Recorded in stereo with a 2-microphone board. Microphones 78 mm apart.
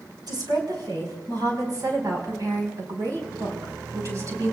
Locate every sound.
0.3 s a woman speaking: 65° right (ahead or behind), 5 m; by 4.5 s 40° right (ahead or behind), 5 m